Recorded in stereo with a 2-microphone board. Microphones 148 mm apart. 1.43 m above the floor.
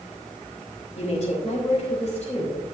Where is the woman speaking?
50° left (ahead or behind), 4 m.